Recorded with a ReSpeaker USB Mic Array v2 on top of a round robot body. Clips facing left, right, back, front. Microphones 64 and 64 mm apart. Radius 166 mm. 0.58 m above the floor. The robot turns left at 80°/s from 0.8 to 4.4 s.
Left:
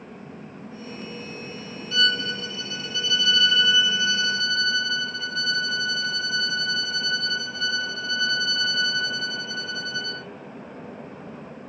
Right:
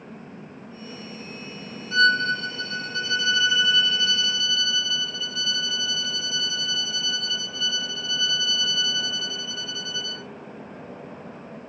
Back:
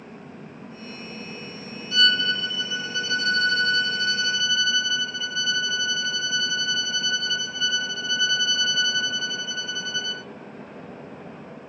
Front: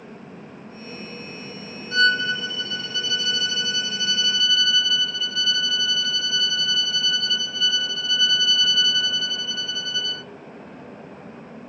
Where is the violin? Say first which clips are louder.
Right 5 dB, front 2 dB; 40° right, 0.9 m; by 10.2 s 120° left, 0.9 m.